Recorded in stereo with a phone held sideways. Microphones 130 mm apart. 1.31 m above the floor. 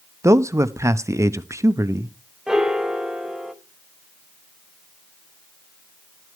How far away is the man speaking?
About 0.6 m.